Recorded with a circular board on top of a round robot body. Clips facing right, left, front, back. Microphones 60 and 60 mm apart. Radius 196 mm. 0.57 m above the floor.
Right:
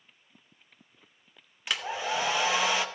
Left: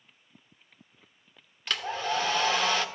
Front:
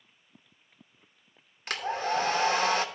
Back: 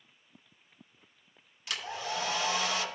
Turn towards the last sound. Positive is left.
turn(degrees=-15)